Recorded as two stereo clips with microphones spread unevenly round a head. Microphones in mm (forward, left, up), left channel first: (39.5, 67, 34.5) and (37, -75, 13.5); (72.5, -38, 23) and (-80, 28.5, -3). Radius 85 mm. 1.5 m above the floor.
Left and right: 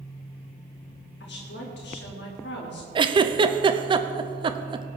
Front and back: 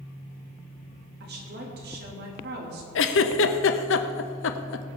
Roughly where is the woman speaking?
Behind left.